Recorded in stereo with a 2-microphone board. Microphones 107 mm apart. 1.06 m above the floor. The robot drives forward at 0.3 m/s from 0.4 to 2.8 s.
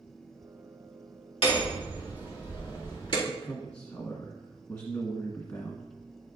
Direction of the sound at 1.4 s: 65° left (ahead or behind).